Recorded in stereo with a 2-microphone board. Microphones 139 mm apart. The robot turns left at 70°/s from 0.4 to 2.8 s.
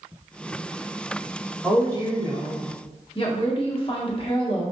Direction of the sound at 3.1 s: 40° left (ahead or behind).